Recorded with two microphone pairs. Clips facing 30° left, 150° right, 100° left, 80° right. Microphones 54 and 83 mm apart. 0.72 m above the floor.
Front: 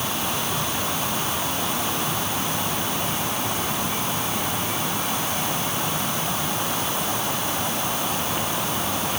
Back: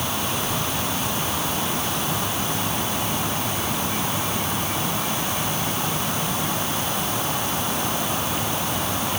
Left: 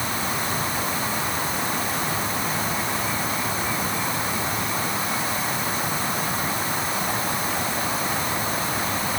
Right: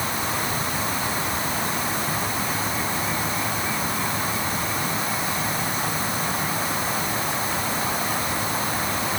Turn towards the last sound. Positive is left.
No sound to turn to.